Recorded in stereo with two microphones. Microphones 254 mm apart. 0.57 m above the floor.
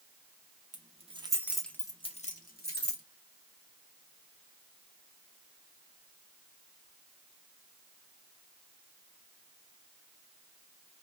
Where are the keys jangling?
30° right (ahead or behind), 0.7 m; by 3.0 s 45° left (ahead or behind), 0.9 m.